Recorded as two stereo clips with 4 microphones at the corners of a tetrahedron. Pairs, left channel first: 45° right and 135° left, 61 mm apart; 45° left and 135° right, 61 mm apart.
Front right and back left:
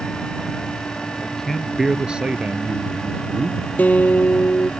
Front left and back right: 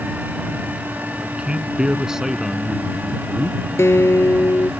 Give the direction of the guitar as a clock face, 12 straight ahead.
12 o'clock.